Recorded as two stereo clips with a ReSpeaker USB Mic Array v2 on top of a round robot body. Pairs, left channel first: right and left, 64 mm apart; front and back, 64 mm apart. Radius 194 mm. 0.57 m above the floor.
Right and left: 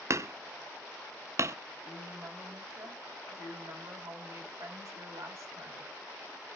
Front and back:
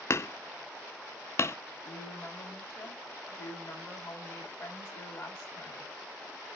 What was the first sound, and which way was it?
Hammering, 50° left.